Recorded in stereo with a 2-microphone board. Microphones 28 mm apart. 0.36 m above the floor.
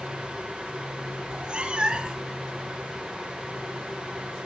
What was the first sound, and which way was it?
A cat meowing, 35° right (ahead or behind).